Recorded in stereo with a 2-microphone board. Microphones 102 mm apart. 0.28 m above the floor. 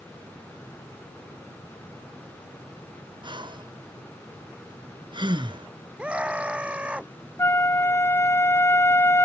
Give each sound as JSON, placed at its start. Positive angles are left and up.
{"t": 3.2, "sound": "breathing", "side_deg": -50}
{"t": 6.0, "sound": "a scream", "side_deg": -10}
{"t": 7.4, "sound": "a flute", "side_deg": 30}